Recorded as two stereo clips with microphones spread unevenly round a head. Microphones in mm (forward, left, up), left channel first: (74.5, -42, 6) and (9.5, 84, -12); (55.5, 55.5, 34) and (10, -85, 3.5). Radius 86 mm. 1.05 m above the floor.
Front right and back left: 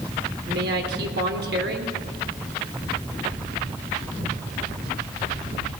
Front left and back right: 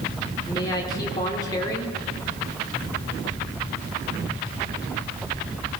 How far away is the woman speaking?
About 3.5 m.